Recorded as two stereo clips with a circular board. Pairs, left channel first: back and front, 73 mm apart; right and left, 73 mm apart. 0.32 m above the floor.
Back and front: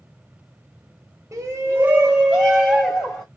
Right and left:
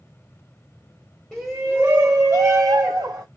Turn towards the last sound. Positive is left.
turn(degrees=110)